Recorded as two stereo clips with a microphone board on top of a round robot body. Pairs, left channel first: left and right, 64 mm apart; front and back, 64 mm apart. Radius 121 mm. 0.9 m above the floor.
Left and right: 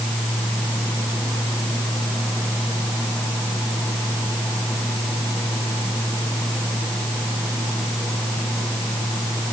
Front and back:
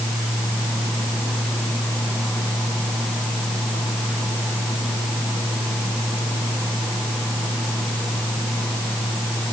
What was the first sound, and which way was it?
Only background noise.